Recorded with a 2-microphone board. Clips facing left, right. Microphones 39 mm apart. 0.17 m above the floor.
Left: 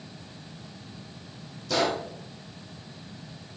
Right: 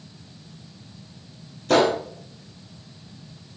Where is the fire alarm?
I don't hear a fire alarm.